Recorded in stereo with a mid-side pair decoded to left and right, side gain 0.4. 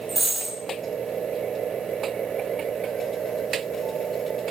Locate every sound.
0.1 s a dropped coin: 35° right, 1.9 m